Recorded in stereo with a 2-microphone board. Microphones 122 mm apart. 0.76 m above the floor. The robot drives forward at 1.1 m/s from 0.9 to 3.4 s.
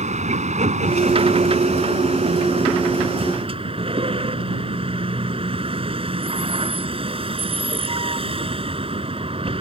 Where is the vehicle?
75° right (ahead or behind); by 9.6 s 50° right (ahead or behind).